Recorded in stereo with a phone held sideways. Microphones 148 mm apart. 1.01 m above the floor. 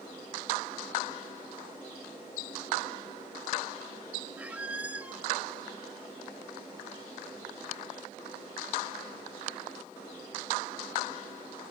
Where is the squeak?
10° right (ahead or behind), 0.9 m.